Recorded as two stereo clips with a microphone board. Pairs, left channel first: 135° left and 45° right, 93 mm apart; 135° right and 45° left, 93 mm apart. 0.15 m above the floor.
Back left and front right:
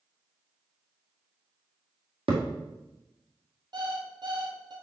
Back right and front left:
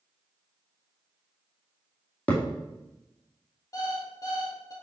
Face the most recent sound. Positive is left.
turn(degrees=-80)